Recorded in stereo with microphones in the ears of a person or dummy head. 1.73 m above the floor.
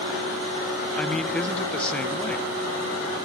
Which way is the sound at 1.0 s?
10° left (ahead or behind).